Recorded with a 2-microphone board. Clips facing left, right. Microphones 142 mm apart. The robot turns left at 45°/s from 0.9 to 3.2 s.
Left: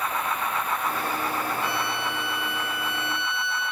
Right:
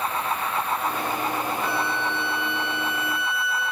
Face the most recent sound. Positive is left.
turn(degrees=55)